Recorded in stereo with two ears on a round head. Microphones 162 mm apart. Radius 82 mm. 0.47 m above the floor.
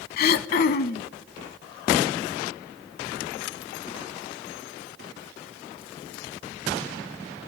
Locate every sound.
0.2 s throat clearing: 55° left (ahead or behind), 0.6 m